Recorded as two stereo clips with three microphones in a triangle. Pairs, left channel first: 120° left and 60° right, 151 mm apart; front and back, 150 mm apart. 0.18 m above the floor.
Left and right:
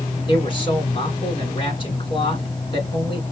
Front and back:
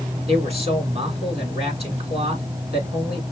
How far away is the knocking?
I don't hear knocking.